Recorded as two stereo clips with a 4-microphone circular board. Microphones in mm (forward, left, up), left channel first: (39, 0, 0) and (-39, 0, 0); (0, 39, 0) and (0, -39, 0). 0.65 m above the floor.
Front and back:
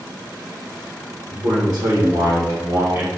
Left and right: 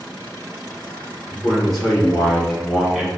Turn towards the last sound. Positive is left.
turn(degrees=-165)